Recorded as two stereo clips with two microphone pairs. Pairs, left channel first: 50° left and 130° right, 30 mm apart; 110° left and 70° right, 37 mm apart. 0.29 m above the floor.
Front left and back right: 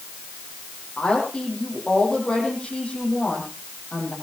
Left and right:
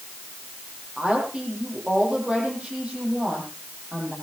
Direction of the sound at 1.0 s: 10° right.